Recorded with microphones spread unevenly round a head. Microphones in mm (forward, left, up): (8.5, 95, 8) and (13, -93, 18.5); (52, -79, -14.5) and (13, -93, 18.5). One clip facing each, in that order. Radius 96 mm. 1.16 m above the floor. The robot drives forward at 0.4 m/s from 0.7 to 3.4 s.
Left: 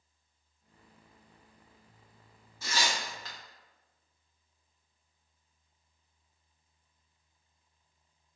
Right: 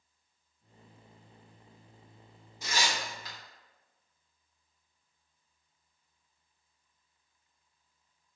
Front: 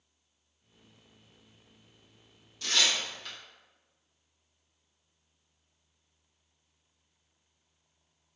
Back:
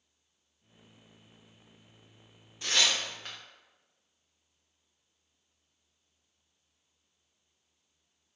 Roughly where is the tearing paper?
Behind.